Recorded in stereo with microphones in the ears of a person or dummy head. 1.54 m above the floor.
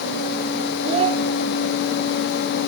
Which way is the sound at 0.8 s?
35° right (ahead or behind).